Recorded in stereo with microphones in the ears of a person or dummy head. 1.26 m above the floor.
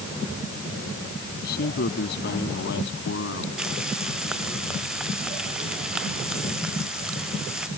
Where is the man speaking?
60° left (ahead or behind); by 3.5 s 80° left.